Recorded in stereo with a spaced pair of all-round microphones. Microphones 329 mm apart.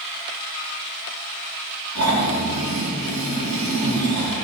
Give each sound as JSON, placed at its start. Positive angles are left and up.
{"t": 1.9, "sound": "snoring", "side_deg": -55, "distance_m": 6.0}